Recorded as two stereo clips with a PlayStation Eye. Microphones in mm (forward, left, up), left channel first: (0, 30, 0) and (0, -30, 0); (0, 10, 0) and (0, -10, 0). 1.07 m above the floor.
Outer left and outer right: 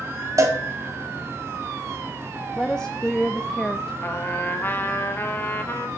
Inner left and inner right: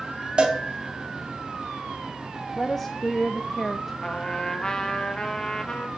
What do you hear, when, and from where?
0.4 s a cowbell: 55° right (ahead or behind), 1.8 m
2.6 s a woman speaking: 10° left (ahead or behind), 0.6 m
4.0 s a trumpet: 35° left (ahead or behind), 1.0 m